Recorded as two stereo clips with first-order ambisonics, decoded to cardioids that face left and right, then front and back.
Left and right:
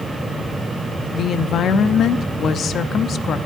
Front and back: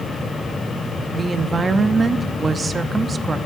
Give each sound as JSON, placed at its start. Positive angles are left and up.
{"t": 1.1, "sound": "a woman speaking", "azimuth_deg": 115, "distance_m": 0.6}